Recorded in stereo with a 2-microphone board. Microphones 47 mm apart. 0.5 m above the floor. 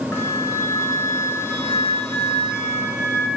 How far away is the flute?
About 1.5 m.